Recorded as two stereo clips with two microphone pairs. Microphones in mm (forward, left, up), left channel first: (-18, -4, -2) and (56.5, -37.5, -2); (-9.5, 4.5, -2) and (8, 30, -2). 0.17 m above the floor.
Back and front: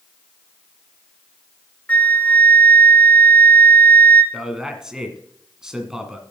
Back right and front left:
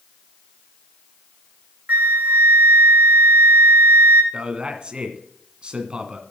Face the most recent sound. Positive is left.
turn(degrees=50)